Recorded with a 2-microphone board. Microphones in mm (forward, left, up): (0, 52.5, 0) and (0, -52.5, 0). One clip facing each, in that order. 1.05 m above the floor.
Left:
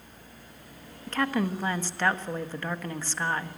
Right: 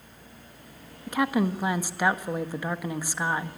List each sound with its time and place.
1.1 s a woman speaking: 10° right (ahead or behind), 1.3 m